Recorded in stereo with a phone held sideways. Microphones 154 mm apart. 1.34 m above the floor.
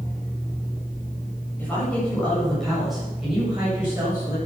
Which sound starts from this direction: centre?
A woman speaking, at 1.6 s.